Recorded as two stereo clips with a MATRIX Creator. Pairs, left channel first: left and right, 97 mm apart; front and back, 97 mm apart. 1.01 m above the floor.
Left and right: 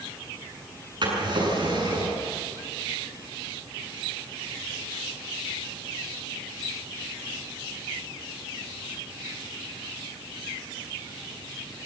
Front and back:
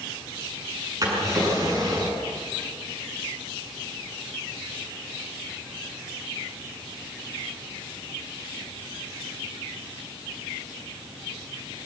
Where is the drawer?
130° right, 7.5 m.